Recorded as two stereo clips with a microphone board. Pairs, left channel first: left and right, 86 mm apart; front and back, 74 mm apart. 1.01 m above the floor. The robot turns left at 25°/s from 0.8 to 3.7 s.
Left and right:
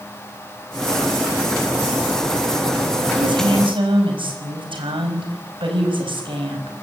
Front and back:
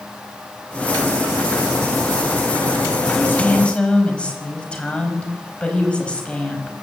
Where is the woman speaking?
60° right, 5 m; by 6.7 s 75° right, 5 m.